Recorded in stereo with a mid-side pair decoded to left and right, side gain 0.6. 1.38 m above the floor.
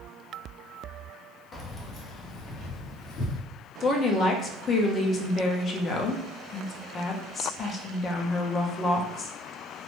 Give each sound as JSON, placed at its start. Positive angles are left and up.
{"t": 1.5, "sound": "keys jangling", "azimuth_deg": 35, "distance_m": 0.7}
{"t": 3.8, "sound": "a woman speaking", "azimuth_deg": 40, "distance_m": 0.7}